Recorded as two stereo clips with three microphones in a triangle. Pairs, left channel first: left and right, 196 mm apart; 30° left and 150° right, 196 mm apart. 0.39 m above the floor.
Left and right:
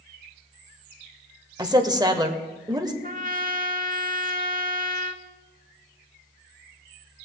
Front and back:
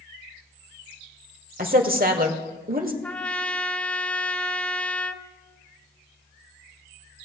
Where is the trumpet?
55° right, 0.8 m.